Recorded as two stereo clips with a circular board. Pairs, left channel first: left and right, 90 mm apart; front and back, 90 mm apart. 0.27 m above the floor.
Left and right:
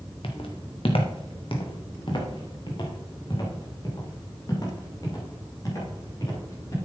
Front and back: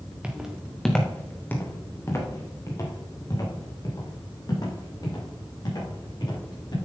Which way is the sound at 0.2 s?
105° left.